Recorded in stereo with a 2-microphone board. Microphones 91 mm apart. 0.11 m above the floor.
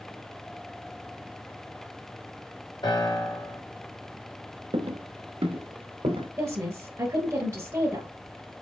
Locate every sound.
2.8 s a piano: 55° left (ahead or behind), 3 m
4.7 s footsteps: 90° right, 0.9 m; by 6.3 s 75° right (ahead or behind), 1.6 m
6.4 s a woman speaking: 35° right (ahead or behind), 1.4 m